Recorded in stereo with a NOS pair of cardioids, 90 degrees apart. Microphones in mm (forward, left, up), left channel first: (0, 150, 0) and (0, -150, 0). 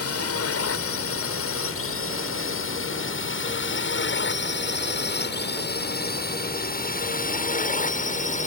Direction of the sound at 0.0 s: 55° left.